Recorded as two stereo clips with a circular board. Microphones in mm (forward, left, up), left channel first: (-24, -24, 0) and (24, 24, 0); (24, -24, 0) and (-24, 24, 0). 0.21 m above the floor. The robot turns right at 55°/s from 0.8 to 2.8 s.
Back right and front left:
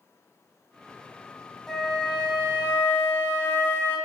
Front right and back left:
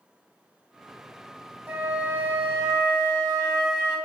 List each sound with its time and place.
1.7 s a flute: 140° left, 0.7 m; by 4.0 s 155° right, 0.7 m